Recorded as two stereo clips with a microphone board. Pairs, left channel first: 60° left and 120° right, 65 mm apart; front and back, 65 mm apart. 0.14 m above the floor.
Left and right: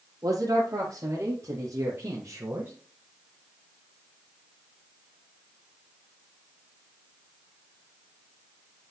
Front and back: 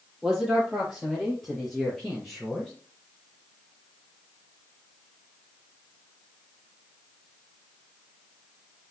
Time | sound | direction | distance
0.2 | a man speaking | 95° right | 4.5 m